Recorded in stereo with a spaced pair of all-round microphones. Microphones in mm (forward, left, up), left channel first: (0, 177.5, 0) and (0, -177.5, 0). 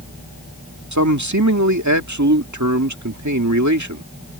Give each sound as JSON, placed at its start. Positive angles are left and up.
{"t": 0.9, "sound": "a man speaking", "side_deg": -55}